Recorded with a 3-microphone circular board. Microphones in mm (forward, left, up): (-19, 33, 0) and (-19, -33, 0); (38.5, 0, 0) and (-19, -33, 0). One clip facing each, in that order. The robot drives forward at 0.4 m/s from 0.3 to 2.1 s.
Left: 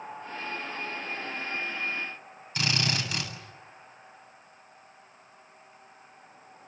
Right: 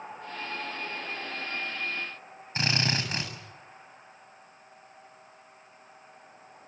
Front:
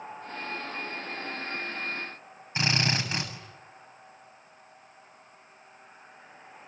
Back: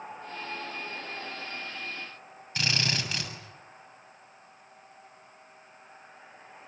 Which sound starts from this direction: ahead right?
A drill, at 2.5 s.